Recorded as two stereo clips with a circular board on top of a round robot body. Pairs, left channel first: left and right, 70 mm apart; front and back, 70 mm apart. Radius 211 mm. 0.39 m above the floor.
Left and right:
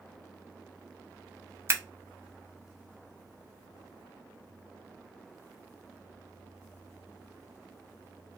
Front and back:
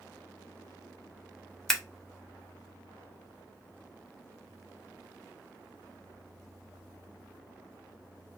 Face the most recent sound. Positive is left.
turn(degrees=-80)